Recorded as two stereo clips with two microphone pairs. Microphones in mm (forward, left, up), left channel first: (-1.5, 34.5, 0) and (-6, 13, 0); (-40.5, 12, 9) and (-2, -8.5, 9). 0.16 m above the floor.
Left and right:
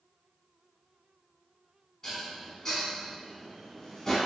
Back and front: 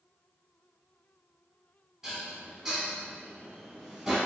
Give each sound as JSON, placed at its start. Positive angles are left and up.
{"t": 2.0, "sound": "dishes clattering", "azimuth_deg": 40, "distance_m": 0.8}